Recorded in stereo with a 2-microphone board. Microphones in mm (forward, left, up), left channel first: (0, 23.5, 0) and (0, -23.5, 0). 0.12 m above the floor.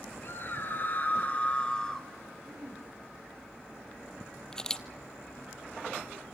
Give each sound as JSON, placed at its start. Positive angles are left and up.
{"t": 0.2, "sound": "a scream", "side_deg": 55, "distance_m": 3.0}
{"t": 2.5, "sound": "throat clearing", "side_deg": -60, "distance_m": 7.0}
{"t": 4.5, "sound": "a camera shutter", "side_deg": 15, "distance_m": 0.8}